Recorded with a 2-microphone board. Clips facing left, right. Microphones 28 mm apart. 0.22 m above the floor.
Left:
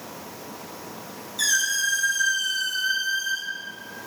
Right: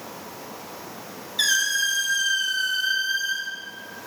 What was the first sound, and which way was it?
A squeak, 30° right (ahead or behind).